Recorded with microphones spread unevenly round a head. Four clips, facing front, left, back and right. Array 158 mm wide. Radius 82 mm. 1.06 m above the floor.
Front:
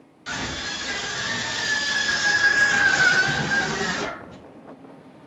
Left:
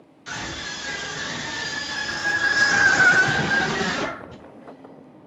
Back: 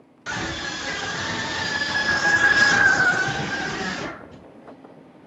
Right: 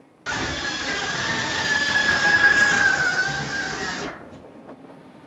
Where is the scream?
115° right, 3 m; by 4.4 s 75° left, 1.8 m.